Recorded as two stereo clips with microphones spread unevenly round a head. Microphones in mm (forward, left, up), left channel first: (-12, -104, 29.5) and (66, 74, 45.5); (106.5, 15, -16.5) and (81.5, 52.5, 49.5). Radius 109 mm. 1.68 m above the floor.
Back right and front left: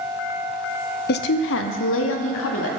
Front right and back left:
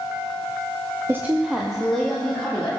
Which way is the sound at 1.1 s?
155° right.